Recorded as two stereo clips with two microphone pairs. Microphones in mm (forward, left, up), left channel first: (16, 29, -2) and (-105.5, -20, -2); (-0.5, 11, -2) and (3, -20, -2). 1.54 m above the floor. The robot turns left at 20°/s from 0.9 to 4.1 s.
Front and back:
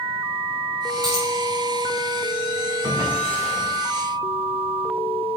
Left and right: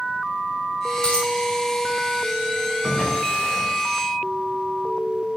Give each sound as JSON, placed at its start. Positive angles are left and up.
{"t": 1.0, "sound": "a dropped coin", "azimuth_deg": 155, "distance_m": 2.0}
{"t": 2.8, "sound": "a drawer", "azimuth_deg": 145, "distance_m": 2.5}